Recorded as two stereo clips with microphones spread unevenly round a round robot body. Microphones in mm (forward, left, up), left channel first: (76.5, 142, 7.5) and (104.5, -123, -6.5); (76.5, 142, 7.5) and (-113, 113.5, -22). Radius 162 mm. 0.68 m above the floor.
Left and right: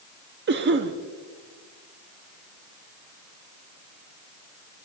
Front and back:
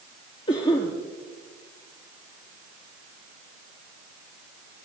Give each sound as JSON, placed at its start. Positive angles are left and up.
{"t": 0.5, "sound": "a cough", "azimuth_deg": -65, "distance_m": 0.8}